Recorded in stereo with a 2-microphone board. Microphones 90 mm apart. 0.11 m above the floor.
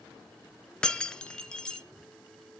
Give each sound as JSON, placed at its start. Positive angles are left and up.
{"t": 0.8, "sound": "breaking glass", "side_deg": 10, "distance_m": 0.9}